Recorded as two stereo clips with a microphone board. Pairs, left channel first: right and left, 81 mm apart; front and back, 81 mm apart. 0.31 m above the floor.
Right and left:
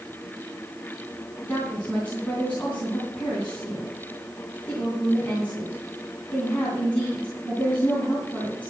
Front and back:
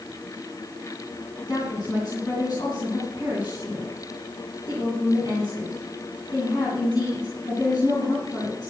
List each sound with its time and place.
1.4 s a woman speaking: 25° right, 3.5 m